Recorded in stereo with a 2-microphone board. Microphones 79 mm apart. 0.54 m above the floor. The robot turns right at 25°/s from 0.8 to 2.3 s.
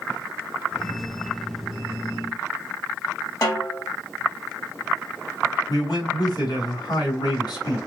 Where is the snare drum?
45° left (ahead or behind), 2.5 m.